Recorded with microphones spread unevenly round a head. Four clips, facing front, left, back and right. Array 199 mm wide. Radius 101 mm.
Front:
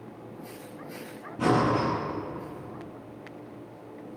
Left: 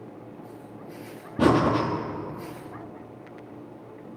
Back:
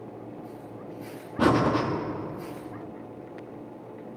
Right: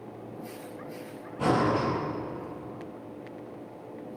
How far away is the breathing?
About 1.7 m.